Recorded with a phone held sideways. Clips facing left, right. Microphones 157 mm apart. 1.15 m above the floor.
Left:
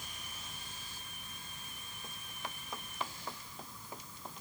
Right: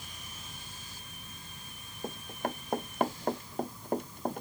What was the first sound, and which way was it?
An insect, 10° right (ahead or behind).